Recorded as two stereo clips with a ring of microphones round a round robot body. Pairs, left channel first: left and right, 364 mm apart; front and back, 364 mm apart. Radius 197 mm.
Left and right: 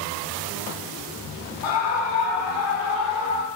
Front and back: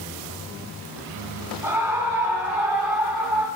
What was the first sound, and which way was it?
A scream, 95° left.